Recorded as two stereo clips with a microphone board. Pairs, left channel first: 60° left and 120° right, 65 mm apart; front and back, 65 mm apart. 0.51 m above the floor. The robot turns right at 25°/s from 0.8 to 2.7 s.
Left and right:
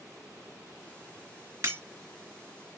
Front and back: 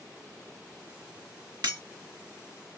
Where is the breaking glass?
165° right, 1.5 m; by 1.8 s 160° right, 1.5 m.